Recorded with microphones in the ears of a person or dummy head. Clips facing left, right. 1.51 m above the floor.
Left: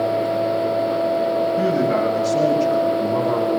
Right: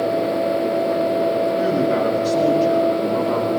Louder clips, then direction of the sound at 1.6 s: Even; 60° left (ahead or behind).